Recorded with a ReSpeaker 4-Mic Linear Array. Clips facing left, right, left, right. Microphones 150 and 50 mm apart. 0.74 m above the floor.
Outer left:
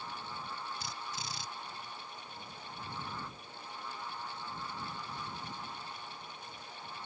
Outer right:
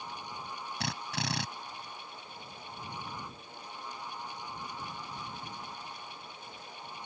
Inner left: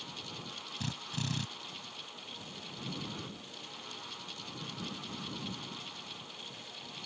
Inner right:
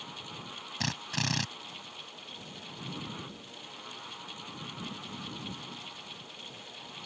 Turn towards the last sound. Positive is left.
turn(degrees=-75)  # may be behind; listen again after turning